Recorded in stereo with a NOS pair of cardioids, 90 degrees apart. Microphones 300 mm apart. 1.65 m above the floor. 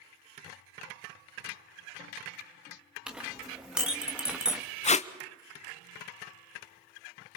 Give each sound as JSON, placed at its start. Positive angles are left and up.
{"t": 3.1, "sound": "a clink", "azimuth_deg": -5, "distance_m": 2.0}
{"t": 4.8, "sound": "tape being pulled", "azimuth_deg": 25, "distance_m": 0.9}